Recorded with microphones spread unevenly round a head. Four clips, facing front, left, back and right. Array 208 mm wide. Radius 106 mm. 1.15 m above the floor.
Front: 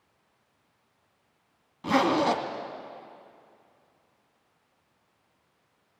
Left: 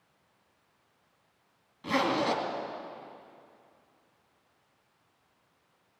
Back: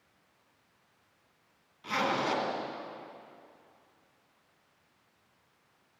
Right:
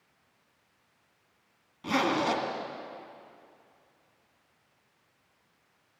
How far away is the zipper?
About 2 m.